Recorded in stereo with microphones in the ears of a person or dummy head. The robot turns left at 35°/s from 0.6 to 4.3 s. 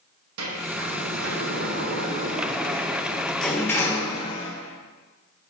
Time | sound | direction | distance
0.4 | a sliding door | 80° right | 1.1 m